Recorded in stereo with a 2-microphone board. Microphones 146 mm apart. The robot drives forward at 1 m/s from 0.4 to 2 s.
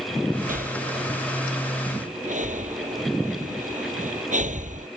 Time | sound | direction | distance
0.5 | breathing | 75° right (ahead or behind) | ?